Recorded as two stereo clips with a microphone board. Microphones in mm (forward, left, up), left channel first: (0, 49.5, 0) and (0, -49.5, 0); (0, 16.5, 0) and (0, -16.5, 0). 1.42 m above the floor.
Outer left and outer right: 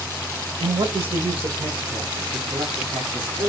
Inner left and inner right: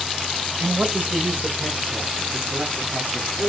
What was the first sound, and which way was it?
A man speaking, 70° right (ahead or behind).